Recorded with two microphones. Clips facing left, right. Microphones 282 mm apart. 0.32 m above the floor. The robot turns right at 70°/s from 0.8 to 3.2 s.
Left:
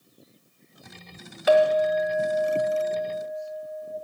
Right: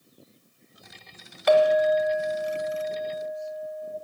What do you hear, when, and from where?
1.5 s a clink: 5° left, 1.0 m; by 4.0 s 130° left, 1.0 m